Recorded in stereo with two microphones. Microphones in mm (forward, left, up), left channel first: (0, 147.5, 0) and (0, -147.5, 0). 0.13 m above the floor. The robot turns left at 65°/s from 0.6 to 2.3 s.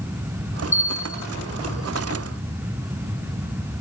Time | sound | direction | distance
0.7 | a bell | 110° left | 0.7 m